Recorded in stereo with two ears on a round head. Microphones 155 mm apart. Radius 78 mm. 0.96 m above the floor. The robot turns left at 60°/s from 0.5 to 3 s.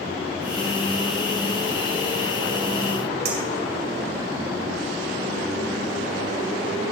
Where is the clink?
65° right (ahead or behind), 2.5 m.